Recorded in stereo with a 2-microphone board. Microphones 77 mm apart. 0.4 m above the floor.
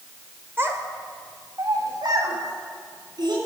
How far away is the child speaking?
About 1.1 m.